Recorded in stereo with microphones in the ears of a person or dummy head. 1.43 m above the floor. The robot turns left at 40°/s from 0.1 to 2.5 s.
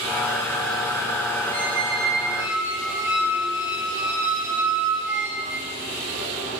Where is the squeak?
30° left, 3.5 m; by 5.7 s 10° right, 3.5 m.